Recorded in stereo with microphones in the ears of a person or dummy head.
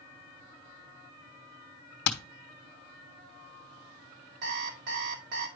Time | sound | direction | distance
2.0 | hammering | 60° left (ahead or behind) | 1.0 m
4.4 | an alarm clock | 70° right (ahead or behind) | 1.8 m